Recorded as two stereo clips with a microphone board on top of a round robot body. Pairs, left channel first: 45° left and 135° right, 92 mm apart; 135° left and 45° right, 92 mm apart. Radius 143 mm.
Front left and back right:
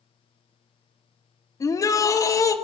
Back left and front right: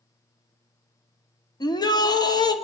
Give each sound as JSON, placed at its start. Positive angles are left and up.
{"t": 1.6, "sound": "a shout", "azimuth_deg": 95, "distance_m": 2.5}